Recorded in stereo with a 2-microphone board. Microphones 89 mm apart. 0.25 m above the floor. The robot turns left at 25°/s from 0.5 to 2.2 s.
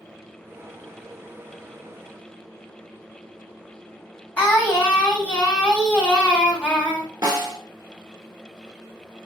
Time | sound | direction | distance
4.4 | singing | 15° left (ahead or behind) | 1.4 m
7.2 | a snare drum | 50° right (ahead or behind) | 1.1 m